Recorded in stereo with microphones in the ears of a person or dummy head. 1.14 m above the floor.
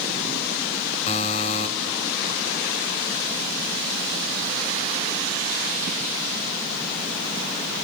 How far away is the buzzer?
About 3 m.